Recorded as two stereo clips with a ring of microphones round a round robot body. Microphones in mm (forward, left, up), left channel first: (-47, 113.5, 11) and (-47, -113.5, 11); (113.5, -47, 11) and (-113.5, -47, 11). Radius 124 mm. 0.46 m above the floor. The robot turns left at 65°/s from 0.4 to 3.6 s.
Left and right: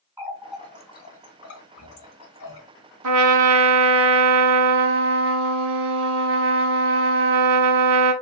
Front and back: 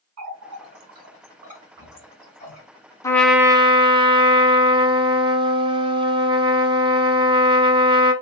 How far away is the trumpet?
About 0.8 m.